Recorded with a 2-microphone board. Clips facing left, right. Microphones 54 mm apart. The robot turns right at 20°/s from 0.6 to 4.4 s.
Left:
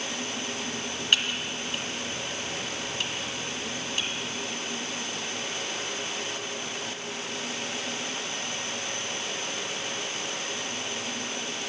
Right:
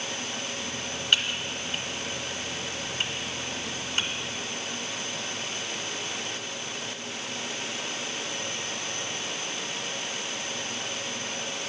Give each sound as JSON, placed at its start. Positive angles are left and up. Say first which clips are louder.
{"t": 1.1, "sound": "typing on a keyboard", "louder": "even", "side_deg": 5, "distance_m": 0.9}